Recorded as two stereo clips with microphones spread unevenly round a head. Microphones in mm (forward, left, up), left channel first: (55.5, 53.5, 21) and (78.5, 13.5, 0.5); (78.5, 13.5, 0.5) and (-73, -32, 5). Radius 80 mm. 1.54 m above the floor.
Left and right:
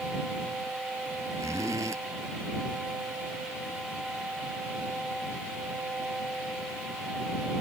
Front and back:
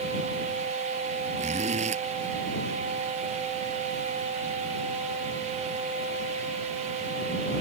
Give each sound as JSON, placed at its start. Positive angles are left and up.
{"t": 1.4, "sound": "a zipper", "azimuth_deg": -115}